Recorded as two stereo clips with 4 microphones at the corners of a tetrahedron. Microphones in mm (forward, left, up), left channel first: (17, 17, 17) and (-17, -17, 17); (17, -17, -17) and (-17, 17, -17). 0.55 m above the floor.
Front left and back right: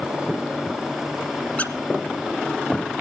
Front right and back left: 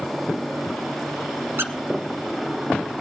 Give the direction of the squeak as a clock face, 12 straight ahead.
8 o'clock.